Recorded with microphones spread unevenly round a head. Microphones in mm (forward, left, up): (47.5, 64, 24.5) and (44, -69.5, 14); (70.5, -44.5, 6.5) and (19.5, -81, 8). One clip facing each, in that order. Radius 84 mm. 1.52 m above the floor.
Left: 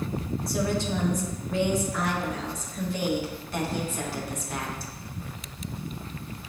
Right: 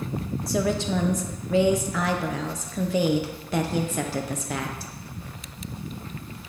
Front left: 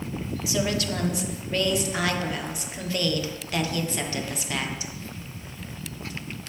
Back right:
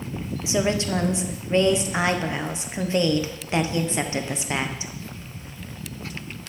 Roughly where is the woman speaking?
Right.